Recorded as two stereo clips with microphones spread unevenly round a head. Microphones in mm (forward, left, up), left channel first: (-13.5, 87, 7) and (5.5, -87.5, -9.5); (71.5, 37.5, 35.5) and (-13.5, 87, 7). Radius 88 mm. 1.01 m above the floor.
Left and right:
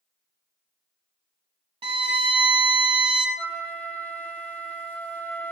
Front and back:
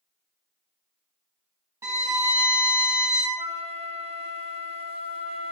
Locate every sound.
1.8 s a violin: 130° right, 0.9 m
3.4 s a flute: 165° left, 0.7 m